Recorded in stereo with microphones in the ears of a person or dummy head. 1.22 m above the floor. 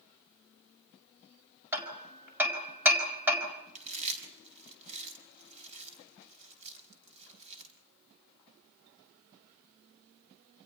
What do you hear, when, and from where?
1.7 s hammering: 15° right (ahead or behind), 4.5 m
3.8 s chewing: 40° right (ahead or behind), 4.5 m